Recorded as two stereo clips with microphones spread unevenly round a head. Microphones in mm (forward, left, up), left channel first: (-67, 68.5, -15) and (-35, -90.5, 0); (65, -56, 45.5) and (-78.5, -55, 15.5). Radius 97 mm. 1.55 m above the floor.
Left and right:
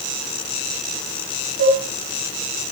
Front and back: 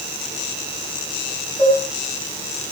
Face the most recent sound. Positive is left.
turn(degrees=-80)